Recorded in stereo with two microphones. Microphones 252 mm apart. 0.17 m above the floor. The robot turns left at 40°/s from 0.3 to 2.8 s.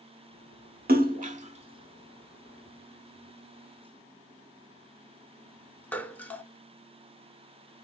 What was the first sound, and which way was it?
A splash, 40° right (ahead or behind).